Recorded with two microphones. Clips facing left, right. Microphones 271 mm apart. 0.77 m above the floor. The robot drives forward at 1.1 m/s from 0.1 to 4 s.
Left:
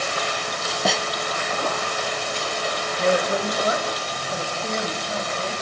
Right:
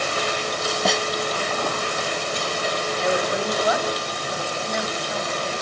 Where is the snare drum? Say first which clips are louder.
Even; centre (ahead or behind), 1.0 m.